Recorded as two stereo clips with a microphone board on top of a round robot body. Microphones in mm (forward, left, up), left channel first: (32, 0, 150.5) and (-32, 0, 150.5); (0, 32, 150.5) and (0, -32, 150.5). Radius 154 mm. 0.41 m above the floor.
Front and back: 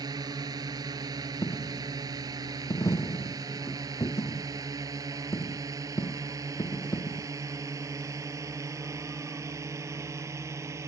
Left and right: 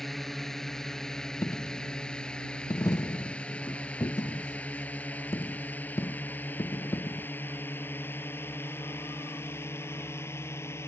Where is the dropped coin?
40° left.